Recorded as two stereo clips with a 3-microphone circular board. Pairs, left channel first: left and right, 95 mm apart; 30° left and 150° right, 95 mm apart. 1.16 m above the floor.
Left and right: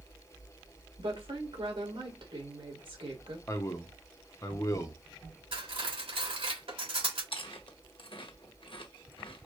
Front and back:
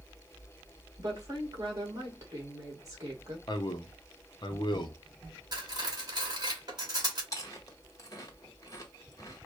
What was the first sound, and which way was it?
A woman speaking, 100° right.